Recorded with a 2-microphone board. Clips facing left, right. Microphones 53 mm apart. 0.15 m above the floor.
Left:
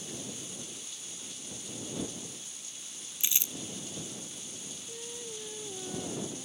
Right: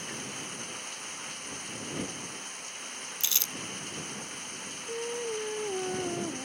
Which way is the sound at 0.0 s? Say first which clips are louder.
Right 4 dB; 55° right (ahead or behind).